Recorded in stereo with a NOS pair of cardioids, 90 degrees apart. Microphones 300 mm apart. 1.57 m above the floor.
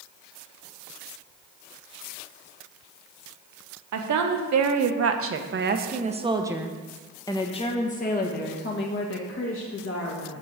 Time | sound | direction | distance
3.9 | a woman speaking | 70° right | 1.6 m